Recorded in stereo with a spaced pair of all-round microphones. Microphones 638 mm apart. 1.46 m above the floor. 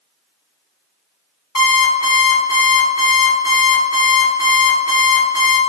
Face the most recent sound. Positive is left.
turn(degrees=20)  # may be behind; listen again after turning